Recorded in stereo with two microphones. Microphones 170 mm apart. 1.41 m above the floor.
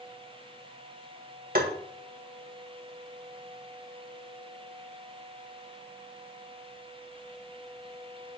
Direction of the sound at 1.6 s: 60° right (ahead or behind).